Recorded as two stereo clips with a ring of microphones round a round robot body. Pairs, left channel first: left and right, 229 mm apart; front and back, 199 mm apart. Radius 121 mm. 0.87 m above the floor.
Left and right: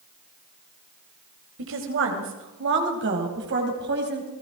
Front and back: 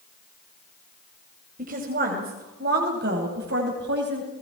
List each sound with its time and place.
1.6 s a woman speaking: 125° right, 4 m; by 4.3 s 135° right, 5 m